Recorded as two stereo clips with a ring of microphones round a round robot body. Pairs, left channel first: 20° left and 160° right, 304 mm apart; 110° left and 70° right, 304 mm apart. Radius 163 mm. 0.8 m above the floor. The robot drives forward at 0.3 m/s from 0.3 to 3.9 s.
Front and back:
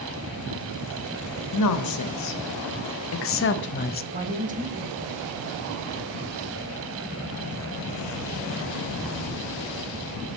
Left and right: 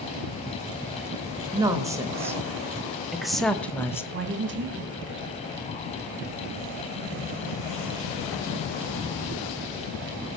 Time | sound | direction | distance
1.5 | a woman speaking | 10° left | 1.1 m
4.1 | a woman speaking | 105° right | 1.1 m